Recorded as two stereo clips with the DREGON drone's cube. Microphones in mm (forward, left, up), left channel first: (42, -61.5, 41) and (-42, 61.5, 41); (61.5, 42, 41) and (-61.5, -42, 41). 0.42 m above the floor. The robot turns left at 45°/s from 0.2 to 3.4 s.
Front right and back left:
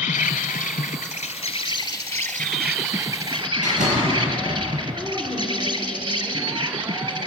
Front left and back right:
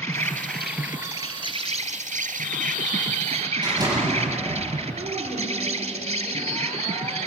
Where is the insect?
35° right, 1.4 m; by 7.3 s 175° right, 1.4 m.